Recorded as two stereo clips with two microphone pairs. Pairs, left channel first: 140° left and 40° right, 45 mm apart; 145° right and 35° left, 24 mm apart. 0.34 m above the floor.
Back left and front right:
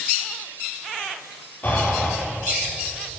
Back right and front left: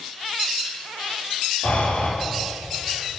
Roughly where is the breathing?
Behind.